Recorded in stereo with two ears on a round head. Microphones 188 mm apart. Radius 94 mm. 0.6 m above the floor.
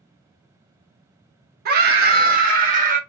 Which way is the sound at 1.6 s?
45° right (ahead or behind).